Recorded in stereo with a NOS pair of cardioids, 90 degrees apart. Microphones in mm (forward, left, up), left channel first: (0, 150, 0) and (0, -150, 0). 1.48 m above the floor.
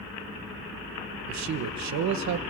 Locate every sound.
1.3 s a man speaking: 65° right, 1.4 m